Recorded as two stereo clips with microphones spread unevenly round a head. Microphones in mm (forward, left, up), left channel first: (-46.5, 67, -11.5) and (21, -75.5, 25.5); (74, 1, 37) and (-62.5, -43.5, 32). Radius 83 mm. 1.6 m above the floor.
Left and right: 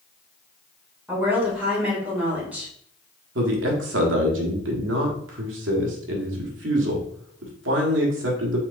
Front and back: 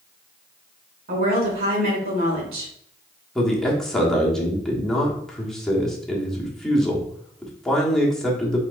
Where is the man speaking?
70° right, 1.3 m.